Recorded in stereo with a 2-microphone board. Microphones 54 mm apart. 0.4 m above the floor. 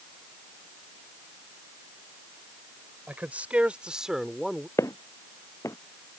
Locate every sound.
3.1 s a man speaking: 30° right (ahead or behind); by 4.7 s 5° left (ahead or behind)
4.8 s footsteps: 70° left (ahead or behind)